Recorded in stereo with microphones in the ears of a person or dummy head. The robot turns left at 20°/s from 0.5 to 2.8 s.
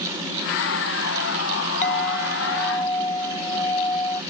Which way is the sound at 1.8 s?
40° left (ahead or behind).